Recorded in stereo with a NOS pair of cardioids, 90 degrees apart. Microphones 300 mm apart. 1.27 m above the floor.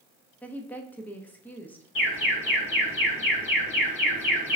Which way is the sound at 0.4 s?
5° left.